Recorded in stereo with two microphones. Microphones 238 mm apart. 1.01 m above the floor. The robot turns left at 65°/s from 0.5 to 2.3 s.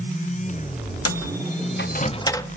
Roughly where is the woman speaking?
No woman speaking in this recording.